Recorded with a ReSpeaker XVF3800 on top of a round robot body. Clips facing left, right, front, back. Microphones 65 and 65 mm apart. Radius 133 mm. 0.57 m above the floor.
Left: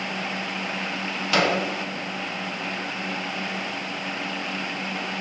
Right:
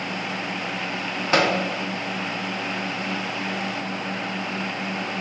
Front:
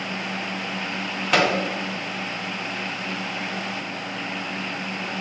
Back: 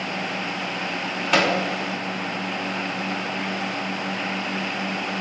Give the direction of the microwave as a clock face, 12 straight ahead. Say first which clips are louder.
Right 2 dB, even; 3 o'clock.